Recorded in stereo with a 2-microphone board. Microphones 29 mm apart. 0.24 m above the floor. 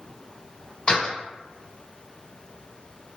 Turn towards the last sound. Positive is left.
turn(degrees=30)  # may be behind; listen again after turning